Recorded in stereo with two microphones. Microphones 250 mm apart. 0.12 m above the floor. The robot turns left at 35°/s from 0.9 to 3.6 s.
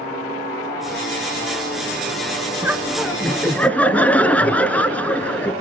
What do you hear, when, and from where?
2.6 s laughter: 10° right (ahead or behind), 1.1 m; by 5.5 s 5° left (ahead or behind), 1.1 m